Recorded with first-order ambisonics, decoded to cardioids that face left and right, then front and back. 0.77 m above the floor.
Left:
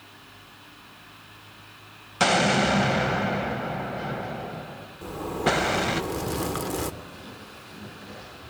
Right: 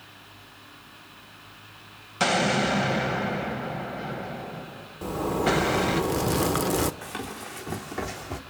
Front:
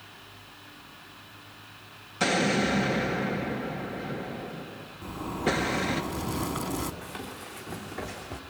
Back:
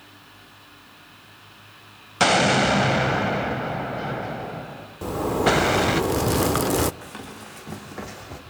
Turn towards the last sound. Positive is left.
turn(degrees=-115)